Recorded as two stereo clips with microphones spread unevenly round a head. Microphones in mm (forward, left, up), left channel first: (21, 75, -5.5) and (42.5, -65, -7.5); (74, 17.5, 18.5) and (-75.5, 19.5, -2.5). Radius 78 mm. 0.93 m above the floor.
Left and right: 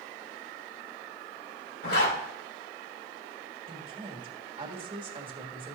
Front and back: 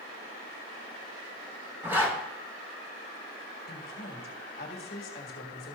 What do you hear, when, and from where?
1.8 s a zipper: 100° left, 3 m
3.7 s a woman speaking: 30° right, 1.7 m